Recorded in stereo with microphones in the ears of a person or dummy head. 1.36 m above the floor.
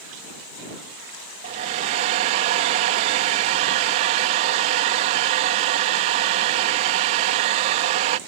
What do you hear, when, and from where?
1.4 s a hair dryer: 25° right (ahead or behind)